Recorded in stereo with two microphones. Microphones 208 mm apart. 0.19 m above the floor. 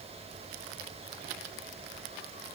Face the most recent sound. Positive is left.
No sound to turn to.